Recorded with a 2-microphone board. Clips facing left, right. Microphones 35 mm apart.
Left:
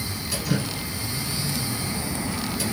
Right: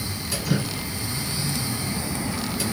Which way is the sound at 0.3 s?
Centre (ahead or behind).